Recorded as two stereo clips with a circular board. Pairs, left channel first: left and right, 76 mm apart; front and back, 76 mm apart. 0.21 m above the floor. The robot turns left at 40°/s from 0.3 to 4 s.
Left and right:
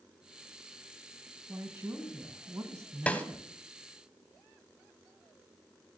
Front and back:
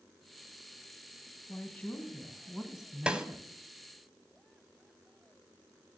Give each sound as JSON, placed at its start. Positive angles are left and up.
{"t": 1.5, "sound": "a woman speaking", "azimuth_deg": -45, "distance_m": 1.4}
{"t": 3.1, "sound": "a snare drum", "azimuth_deg": 125, "distance_m": 0.8}